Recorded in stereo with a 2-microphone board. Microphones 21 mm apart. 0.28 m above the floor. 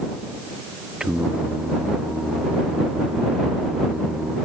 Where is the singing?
30° right (ahead or behind).